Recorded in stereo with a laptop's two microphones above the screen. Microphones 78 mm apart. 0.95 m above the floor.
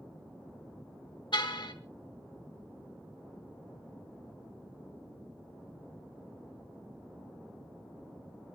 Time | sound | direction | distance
1.3 | a car horn | 70° left (ahead or behind) | 2 m